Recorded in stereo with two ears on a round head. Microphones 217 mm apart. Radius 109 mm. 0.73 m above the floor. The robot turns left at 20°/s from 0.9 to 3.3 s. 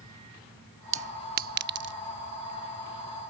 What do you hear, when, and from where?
0.9 s a clink: 30° right (ahead or behind); by 1.9 s 50° right (ahead or behind)